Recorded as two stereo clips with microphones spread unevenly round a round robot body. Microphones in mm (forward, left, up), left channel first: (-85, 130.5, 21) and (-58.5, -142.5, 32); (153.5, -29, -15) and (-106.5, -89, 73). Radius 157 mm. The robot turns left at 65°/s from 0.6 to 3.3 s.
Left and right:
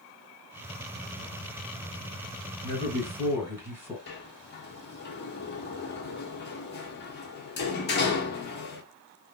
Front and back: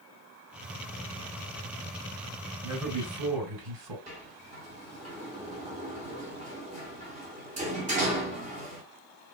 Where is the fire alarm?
No fire alarm in this recording.